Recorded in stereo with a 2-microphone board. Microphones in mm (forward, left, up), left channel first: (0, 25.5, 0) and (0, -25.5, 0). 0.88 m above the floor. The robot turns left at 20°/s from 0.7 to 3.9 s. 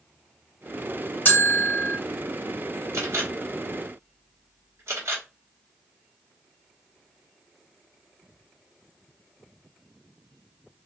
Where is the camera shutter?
70° right (ahead or behind), 1.6 m.